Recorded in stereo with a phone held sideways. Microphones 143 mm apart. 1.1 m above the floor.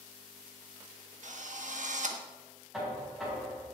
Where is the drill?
60° right (ahead or behind), 1.4 m.